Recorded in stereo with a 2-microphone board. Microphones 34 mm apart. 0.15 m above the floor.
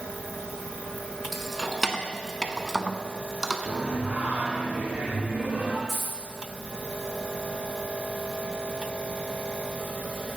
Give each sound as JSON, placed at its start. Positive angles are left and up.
{"t": 1.3, "sound": "keys jangling", "side_deg": 5, "distance_m": 1.4}
{"t": 3.7, "sound": "singing", "side_deg": -45, "distance_m": 3.0}
{"t": 5.9, "sound": "a dropped coin", "side_deg": -15, "distance_m": 6.5}